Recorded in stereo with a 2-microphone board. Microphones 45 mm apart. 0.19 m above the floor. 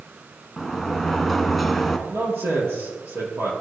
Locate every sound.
0.6 s a sliding door: centre (ahead or behind), 1.0 m
2.1 s a man speaking: 65° right (ahead or behind), 4.5 m